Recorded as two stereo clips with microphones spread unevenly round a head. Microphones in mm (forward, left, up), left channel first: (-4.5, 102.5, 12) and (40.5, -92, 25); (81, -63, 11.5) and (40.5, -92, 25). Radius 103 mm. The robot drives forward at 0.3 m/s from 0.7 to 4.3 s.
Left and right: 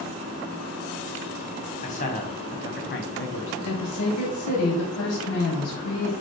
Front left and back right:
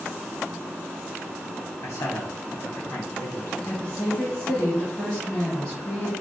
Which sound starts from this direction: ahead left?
A man speaking, at 1.8 s.